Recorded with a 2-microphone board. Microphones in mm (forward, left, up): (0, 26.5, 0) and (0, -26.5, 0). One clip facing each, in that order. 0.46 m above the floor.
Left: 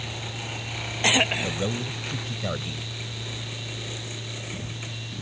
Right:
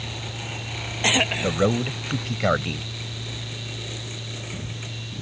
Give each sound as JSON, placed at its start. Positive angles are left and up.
{"t": 1.4, "sound": "a man speaking", "side_deg": -65}